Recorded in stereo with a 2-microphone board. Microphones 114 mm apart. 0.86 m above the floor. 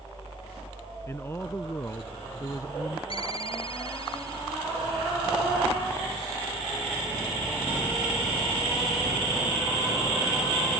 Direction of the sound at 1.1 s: 25° left (ahead or behind).